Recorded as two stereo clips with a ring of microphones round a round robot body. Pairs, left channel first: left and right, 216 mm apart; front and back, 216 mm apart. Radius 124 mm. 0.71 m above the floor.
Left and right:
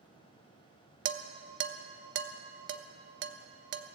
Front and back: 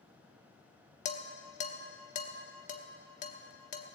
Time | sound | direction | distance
1.1 | dishes clattering | 60° right | 0.8 m